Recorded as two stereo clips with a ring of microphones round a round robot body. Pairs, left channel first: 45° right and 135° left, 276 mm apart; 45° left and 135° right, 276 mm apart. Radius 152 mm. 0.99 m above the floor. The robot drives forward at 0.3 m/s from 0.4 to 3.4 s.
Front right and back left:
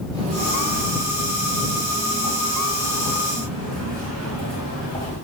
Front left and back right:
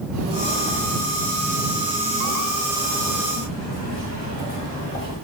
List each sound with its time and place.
0.1 s footsteps: 165° right, 1.1 m; by 5.2 s 100° left, 6 m